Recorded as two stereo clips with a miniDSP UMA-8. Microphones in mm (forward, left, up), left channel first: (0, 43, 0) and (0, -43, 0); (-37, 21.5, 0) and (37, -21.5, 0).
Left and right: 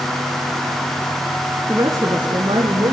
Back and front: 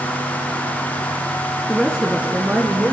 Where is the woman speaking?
125° right, 1.3 m; by 2.9 s 95° right, 3 m.